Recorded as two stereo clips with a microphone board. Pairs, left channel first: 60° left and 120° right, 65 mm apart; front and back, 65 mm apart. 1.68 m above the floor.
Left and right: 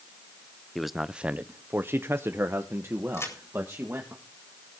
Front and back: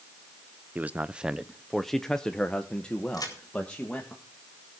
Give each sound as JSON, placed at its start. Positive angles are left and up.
{"t": 0.8, "sound": "a man speaking", "azimuth_deg": 145, "distance_m": 0.5}
{"t": 3.1, "sound": "a crack", "azimuth_deg": 15, "distance_m": 4.0}